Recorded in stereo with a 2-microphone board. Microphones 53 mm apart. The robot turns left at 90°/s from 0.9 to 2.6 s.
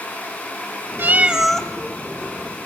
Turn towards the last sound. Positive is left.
turn(degrees=80)